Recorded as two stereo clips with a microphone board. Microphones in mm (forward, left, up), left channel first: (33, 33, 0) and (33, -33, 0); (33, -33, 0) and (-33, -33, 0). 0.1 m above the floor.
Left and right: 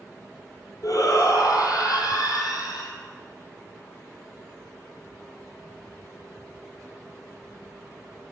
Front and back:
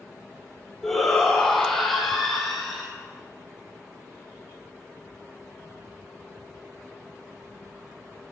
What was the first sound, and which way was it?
A shout, 85° left.